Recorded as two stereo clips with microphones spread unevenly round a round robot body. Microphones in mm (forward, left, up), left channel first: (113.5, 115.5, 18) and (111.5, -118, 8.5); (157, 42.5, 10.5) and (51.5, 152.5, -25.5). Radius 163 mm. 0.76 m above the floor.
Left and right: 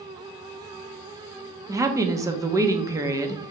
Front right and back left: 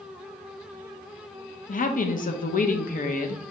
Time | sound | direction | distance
1.7 | a woman speaking | 20° right | 0.9 m